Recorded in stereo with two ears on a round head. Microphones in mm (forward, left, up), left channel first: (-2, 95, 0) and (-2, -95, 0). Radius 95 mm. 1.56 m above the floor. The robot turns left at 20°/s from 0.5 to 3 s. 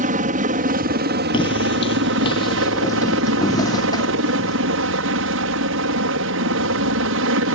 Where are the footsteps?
25° left (ahead or behind); by 4.6 s 20° left (ahead or behind).